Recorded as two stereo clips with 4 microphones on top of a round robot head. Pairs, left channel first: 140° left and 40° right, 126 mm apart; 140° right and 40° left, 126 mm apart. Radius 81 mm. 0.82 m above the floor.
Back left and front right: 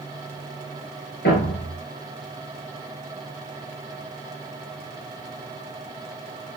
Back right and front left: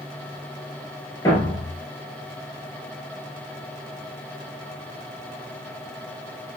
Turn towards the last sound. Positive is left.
turn(degrees=155)